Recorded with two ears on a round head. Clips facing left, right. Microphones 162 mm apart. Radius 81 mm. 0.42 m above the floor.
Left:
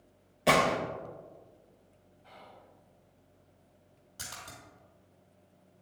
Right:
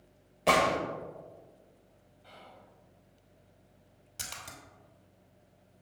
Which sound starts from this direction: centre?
A gunshot, at 0.5 s.